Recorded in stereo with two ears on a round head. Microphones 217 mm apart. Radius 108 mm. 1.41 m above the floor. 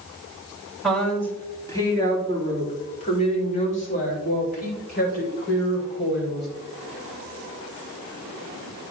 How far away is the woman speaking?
About 3 m.